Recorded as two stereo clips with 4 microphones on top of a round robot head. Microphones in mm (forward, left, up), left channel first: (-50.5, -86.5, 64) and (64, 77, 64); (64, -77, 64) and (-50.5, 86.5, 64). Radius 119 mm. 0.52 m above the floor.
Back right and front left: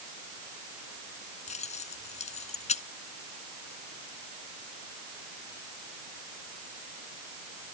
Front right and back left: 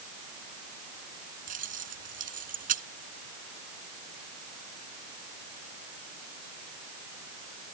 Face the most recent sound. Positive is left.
turn(degrees=175)